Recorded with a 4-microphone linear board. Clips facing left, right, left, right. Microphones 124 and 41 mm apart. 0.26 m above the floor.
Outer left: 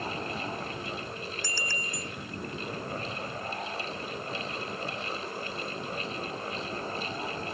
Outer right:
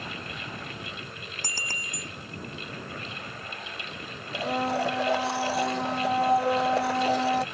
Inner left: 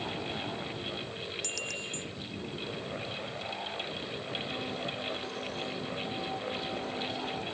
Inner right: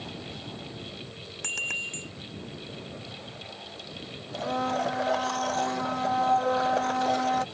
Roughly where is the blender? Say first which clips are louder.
Outer right 9 dB, inner right 11 dB; right.